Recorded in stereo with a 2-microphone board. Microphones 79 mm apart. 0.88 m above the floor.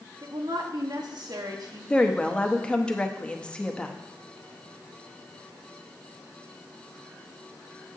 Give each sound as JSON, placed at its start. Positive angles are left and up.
{"t": 0.2, "sound": "a woman speaking", "side_deg": -60, "distance_m": 1.3}
{"t": 1.9, "sound": "a woman speaking", "side_deg": 15, "distance_m": 0.8}